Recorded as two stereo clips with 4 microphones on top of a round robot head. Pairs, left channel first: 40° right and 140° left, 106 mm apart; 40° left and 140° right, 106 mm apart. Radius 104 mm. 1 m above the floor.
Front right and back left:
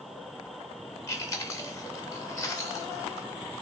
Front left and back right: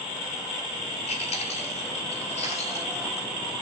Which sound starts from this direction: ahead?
Chewing, at 1.1 s.